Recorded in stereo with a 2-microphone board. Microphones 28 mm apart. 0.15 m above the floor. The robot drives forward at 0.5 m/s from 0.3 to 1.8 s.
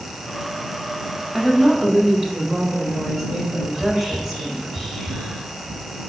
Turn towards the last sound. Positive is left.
turn(degrees=5)  # may be behind; listen again after turning